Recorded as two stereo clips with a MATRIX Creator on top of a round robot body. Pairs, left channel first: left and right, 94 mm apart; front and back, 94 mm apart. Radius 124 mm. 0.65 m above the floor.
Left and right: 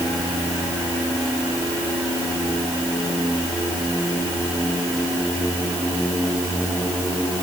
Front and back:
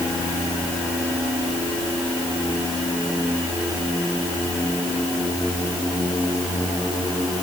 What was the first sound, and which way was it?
Only background noise.